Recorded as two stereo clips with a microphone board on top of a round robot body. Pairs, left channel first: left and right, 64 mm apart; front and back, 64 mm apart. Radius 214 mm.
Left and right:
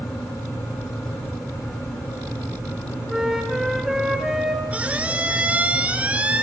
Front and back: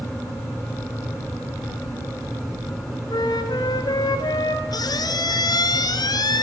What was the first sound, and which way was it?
A flute, 5° right.